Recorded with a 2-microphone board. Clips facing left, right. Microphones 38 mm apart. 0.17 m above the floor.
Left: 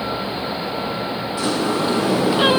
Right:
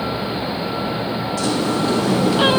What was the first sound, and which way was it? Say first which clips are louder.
A sliding door: even; 20° left (ahead or behind).